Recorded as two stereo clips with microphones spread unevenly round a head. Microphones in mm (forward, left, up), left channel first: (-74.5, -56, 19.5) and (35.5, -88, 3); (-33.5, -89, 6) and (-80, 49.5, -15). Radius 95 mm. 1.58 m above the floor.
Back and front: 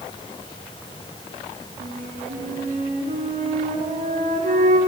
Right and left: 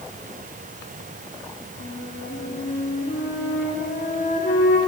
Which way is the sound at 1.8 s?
20° right.